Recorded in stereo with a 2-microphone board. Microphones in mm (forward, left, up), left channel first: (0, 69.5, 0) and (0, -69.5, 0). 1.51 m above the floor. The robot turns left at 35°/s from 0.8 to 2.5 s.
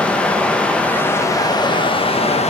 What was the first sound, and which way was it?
Running water, 170° left.